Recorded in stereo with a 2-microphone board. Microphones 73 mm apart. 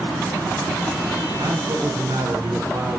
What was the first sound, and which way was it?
A man speaking, 70° right (ahead or behind).